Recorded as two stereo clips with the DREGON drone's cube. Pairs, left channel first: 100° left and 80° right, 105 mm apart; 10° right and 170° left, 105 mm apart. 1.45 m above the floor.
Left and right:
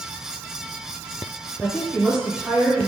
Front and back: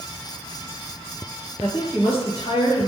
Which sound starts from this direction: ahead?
A woman speaking, at 1.6 s.